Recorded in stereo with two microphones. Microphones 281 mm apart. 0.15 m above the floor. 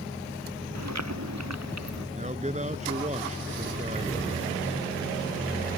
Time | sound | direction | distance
0.8 | chewing | 70° right (ahead or behind) | ?
2.1 | a man speaking | 25° right (ahead or behind) | ?